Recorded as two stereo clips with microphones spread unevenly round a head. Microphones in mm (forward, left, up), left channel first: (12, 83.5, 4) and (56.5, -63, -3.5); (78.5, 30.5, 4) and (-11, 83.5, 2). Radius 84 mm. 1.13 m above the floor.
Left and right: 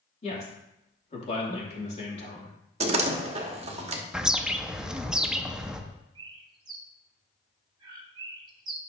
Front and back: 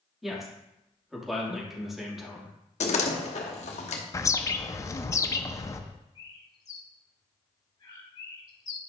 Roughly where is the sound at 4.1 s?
Ahead.